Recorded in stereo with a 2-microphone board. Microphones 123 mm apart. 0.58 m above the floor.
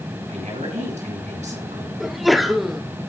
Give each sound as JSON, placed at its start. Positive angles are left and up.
{"t": 0.3, "sound": "a woman speaking", "side_deg": -75, "distance_m": 5.5}
{"t": 2.0, "sound": "a sneeze", "side_deg": 0, "distance_m": 0.9}